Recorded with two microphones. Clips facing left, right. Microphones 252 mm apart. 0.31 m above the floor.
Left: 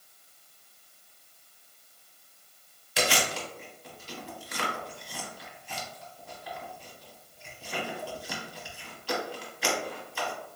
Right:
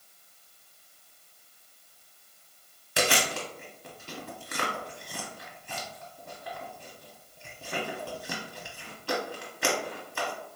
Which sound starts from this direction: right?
Chewing, at 3.0 s.